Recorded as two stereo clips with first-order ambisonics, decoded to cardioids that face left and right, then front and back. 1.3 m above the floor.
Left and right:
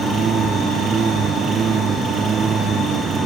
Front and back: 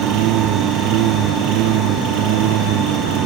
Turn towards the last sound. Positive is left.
turn(degrees=-155)